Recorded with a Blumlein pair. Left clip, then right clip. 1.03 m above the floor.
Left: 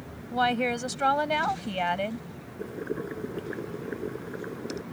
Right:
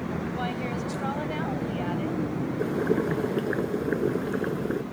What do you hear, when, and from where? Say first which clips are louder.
0.3 s a woman speaking: left 11 dB; 65° left
2.6 s boiling: right 7 dB; 25° right